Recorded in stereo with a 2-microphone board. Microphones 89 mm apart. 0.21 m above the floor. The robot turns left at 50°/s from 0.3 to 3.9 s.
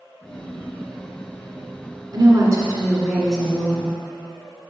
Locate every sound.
2.1 s a woman speaking: 115° right, 1.8 m; by 4.0 s 155° left, 1.8 m